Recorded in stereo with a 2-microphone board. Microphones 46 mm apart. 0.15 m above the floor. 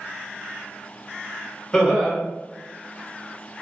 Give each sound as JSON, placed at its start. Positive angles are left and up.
{"t": 1.7, "sound": "laughter", "side_deg": 10, "distance_m": 1.8}